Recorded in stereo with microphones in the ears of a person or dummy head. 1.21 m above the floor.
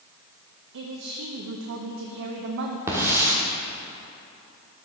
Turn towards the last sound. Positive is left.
turn(degrees=-15)  # may be behind; listen again after turning